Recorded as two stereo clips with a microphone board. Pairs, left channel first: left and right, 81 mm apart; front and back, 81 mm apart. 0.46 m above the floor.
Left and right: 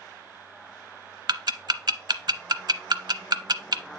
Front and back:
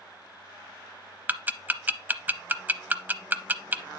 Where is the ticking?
115° right, 0.6 m.